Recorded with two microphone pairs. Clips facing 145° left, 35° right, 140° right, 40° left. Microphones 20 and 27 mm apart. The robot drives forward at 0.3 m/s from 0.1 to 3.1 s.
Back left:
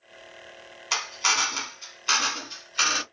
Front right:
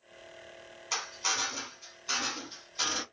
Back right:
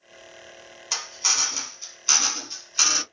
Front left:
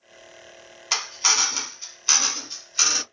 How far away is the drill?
About 0.7 m.